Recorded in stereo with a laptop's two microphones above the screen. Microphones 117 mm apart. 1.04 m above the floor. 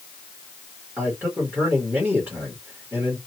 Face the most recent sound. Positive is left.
turn(degrees=-15)  # may be behind; listen again after turning